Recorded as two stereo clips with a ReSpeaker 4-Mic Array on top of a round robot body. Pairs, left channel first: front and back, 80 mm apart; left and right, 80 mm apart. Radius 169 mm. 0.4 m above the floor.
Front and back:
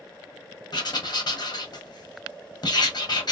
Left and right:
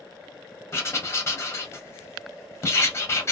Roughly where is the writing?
Ahead left.